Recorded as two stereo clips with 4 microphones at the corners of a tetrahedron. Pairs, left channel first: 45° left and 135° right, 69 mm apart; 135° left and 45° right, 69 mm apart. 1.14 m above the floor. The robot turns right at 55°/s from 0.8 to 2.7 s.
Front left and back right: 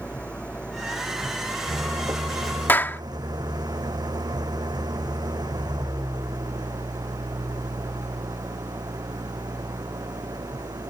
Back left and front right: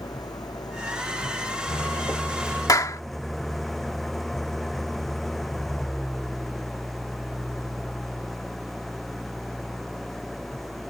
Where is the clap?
105° left.